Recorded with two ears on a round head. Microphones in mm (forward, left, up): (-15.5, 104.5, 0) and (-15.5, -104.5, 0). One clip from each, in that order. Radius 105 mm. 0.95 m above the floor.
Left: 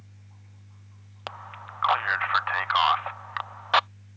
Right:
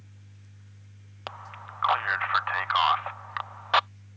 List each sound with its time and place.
1.3 s a man speaking: 5° left (ahead or behind)